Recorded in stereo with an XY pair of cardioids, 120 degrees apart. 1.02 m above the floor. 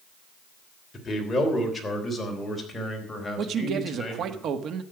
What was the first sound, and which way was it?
A man speaking, 20° left.